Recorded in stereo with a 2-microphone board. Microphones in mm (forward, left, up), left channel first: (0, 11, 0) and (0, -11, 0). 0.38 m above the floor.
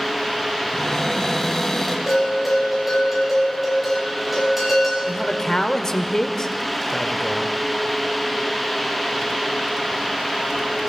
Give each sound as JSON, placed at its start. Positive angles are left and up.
{"t": 0.7, "sound": "a cupboard door", "side_deg": 15, "distance_m": 2.5}
{"t": 2.1, "sound": "a bell", "side_deg": -10, "distance_m": 5.5}
{"t": 5.0, "sound": "a man speaking", "side_deg": 25, "distance_m": 1.0}